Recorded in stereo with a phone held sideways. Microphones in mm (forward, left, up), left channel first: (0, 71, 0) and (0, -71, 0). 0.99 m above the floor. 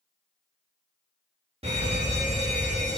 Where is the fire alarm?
50° right (ahead or behind), 3.5 m.